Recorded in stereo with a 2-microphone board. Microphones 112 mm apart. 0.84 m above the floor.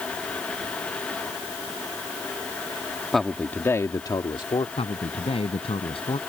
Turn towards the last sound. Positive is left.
turn(degrees=60)  # may be behind; listen again after turning